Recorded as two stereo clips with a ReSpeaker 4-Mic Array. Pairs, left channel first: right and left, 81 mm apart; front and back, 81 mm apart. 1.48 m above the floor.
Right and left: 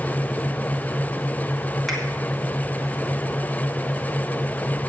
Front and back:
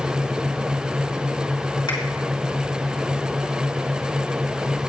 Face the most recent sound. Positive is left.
turn(degrees=0)